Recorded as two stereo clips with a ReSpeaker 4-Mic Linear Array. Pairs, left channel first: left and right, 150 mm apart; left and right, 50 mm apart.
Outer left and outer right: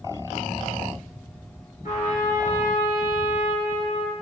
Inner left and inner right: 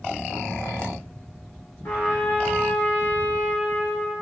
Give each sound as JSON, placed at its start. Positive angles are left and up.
{"t": 1.8, "sound": "a trumpet", "side_deg": 60, "distance_m": 1.8}